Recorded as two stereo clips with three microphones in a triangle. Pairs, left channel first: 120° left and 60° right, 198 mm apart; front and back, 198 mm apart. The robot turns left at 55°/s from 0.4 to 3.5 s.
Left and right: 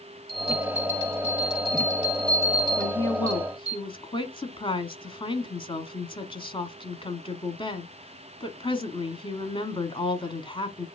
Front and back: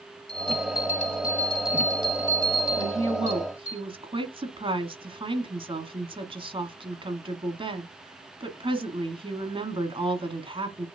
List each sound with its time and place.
0.3 s a bell: 25° right, 5.5 m; by 3.8 s 165° left, 5.5 m
2.8 s a woman speaking: 170° right, 1.1 m; by 10.9 s 150° left, 1.1 m